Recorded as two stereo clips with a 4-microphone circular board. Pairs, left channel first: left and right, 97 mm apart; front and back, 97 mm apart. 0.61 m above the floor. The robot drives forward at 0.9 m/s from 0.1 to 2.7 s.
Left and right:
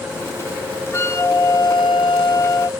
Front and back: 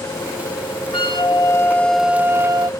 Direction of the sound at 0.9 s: 30° left.